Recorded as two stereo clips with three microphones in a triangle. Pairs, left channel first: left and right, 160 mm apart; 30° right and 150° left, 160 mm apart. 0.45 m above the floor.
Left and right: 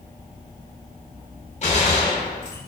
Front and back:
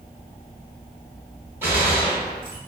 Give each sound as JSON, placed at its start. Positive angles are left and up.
{"t": 1.6, "sound": "a gunshot", "azimuth_deg": 80, "distance_m": 1.1}